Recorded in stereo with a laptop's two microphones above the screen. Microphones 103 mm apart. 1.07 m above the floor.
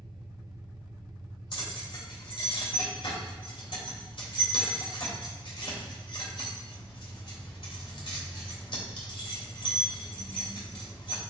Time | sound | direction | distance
0.0 | an engine running | 45° right (ahead or behind) | 1.0 m
1.5 | keys jangling | 55° left (ahead or behind) | 3 m